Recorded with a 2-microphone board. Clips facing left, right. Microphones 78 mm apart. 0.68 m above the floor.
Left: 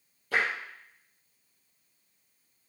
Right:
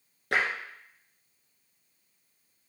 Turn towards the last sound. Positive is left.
turn(degrees=-75)  # may be behind; listen again after turning